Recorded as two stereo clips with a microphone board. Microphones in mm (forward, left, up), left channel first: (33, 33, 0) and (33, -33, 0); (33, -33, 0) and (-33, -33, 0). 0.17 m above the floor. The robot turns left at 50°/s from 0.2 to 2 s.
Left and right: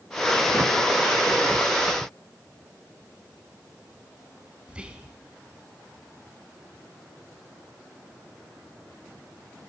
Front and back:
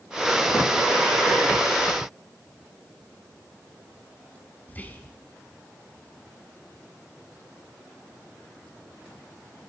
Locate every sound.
4.7 s whispering: 35° right, 1.1 m